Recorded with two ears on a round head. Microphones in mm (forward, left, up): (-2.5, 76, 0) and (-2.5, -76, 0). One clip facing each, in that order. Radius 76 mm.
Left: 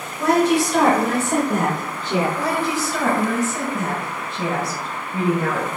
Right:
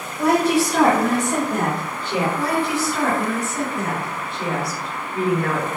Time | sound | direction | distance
0.2 | a woman speaking | 20° right (ahead or behind) | 1.7 m
2.4 | a woman speaking | 65° left (ahead or behind) | 1.7 m